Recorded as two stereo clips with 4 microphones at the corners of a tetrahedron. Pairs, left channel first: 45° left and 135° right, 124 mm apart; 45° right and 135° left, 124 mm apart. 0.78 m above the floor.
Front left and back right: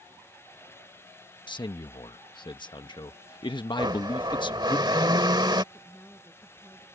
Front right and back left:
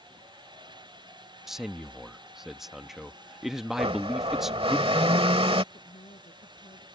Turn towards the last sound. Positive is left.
turn(degrees=-30)